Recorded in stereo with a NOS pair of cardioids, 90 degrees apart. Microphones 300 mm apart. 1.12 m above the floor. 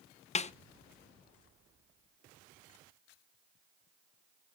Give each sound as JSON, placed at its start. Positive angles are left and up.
{"t": 0.3, "sound": "a snare drum", "azimuth_deg": 25, "distance_m": 0.6}